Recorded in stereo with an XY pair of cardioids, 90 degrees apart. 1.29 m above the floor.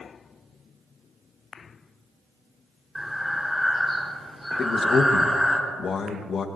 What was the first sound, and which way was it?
Breathing, 5° left.